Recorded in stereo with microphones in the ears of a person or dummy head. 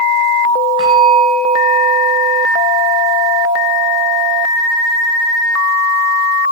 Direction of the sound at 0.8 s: 30° right (ahead or behind).